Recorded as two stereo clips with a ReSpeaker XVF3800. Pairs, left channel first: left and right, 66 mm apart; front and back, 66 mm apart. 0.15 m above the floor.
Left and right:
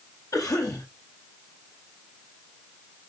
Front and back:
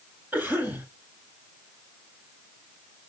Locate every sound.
0.3 s a cough: 115° left, 4.5 m